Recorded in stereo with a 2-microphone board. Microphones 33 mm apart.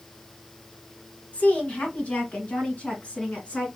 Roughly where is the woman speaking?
Left.